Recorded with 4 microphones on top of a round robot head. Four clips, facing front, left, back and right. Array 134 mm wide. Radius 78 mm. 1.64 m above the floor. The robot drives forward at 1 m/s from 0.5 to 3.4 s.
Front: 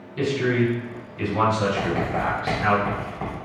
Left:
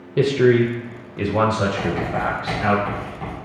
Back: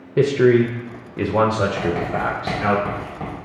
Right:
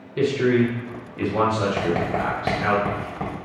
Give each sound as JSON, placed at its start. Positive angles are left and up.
{"t": 0.2, "sound": "a man speaking", "azimuth_deg": 155, "distance_m": 0.8}
{"t": 1.8, "sound": "writing", "azimuth_deg": -95, "distance_m": 2.5}